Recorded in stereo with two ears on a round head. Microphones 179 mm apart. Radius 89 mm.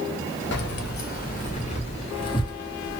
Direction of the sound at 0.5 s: 60° left (ahead or behind).